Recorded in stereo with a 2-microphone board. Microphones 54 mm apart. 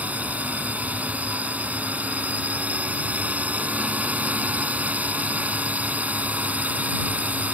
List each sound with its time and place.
0.0 s a drone: 25° right (ahead or behind)